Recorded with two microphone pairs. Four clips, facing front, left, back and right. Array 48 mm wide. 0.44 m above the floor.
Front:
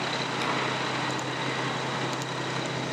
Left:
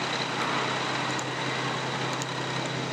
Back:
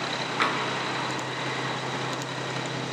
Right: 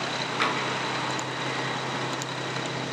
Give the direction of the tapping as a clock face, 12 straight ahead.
5 o'clock.